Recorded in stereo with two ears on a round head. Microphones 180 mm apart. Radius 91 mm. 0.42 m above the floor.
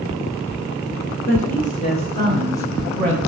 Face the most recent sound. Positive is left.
turn(degrees=5)  # may be behind; listen again after turning